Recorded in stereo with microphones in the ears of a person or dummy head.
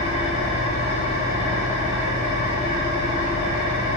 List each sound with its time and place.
0.0 s an engine running: 60° left (ahead or behind), 1.3 m